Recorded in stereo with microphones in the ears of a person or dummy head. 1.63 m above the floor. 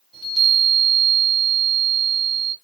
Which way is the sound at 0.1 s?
5° right (ahead or behind).